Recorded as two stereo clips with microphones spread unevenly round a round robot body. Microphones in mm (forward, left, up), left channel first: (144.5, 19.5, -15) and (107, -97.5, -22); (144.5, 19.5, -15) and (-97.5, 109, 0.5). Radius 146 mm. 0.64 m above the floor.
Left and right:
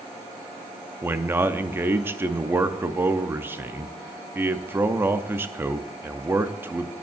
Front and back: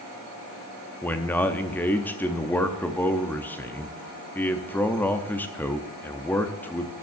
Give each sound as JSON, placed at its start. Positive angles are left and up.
{"t": 1.0, "sound": "a man speaking", "azimuth_deg": -85, "distance_m": 0.5}